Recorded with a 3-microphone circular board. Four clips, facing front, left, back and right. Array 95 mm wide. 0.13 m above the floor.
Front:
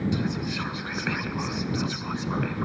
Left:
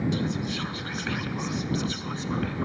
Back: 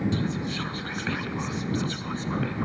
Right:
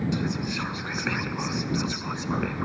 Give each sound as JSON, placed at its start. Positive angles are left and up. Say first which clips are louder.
{"t": 0.1, "sound": "whispering", "louder": "even, even", "azimuth_deg": -65}